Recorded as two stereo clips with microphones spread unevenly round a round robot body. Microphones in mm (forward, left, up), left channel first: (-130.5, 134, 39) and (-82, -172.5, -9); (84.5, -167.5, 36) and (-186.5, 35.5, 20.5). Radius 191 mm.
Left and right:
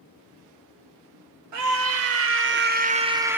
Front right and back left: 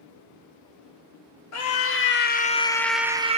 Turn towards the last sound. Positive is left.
turn(degrees=-155)